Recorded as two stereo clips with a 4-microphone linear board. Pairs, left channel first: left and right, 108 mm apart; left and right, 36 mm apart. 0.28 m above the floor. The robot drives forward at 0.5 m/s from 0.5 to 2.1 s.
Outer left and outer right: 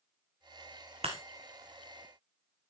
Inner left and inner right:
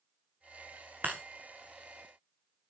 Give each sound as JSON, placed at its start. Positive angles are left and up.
{"t": 1.0, "sound": "breaking glass", "side_deg": -65, "distance_m": 2.5}